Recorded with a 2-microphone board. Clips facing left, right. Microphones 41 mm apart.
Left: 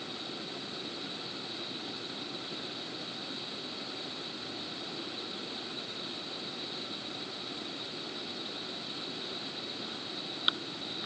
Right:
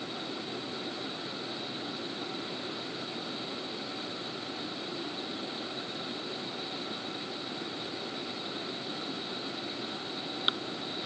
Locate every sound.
Only background noise.